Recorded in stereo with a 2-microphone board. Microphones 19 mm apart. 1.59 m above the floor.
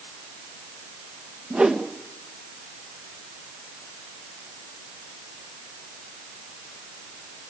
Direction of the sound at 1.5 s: 80° right.